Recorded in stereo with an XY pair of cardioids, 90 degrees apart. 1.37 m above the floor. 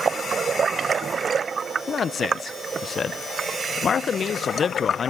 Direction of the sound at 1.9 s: 50° left.